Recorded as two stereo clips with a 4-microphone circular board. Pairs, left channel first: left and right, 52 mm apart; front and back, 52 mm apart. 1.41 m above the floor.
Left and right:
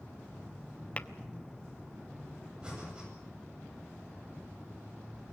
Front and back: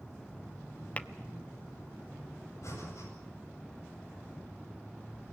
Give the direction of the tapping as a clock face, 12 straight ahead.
11 o'clock.